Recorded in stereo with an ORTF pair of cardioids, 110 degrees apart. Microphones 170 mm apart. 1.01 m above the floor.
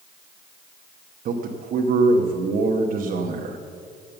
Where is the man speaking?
55° right, 1.1 m.